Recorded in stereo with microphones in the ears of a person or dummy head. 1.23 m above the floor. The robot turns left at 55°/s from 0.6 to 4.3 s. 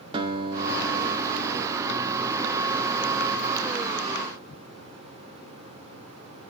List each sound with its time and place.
0.1 s a guitar: 25° right, 4 m; by 2.5 s 135° right, 4 m